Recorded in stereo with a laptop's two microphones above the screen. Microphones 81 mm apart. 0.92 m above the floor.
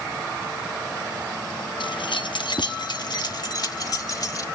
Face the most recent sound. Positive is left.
turn(degrees=50)  # may be behind; listen again after turning